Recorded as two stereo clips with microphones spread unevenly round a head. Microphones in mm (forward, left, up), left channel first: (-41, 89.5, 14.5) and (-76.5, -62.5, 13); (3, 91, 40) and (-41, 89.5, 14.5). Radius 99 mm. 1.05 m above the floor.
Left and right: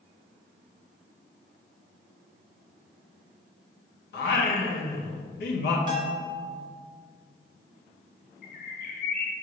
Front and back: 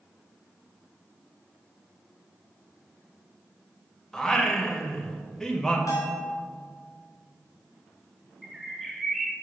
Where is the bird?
60° left, 0.6 m.